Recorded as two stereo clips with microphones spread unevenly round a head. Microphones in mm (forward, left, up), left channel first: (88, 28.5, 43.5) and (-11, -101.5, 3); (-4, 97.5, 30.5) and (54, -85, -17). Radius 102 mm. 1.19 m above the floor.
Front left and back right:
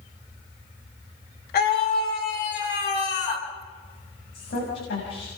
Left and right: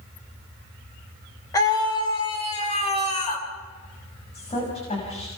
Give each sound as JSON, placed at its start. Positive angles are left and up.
{"t": 1.5, "sound": "a scream", "azimuth_deg": 35, "distance_m": 4.5}
{"t": 4.3, "sound": "a woman speaking", "azimuth_deg": 50, "distance_m": 6.5}